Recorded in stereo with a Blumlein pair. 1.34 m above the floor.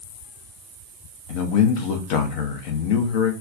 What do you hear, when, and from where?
1.3 s a man speaking: 45° left, 0.6 m